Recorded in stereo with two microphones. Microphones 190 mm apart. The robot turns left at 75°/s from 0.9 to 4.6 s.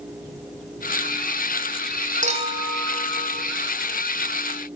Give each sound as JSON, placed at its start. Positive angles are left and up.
{"t": 2.2, "sound": "a clink", "azimuth_deg": -135, "distance_m": 2.5}